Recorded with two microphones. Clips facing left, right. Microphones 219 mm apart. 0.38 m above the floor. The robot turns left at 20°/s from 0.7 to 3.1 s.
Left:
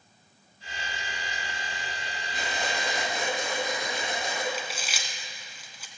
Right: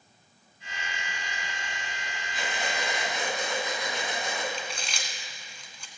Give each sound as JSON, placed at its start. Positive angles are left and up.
{"t": 2.3, "sound": "breathing", "side_deg": 45, "distance_m": 3.5}
{"t": 4.5, "sound": "chewing", "side_deg": 5, "distance_m": 1.1}